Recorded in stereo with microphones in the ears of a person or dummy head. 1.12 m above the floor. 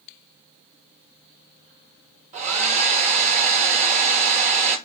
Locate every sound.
2.3 s a hair dryer: 40° right (ahead or behind), 0.8 m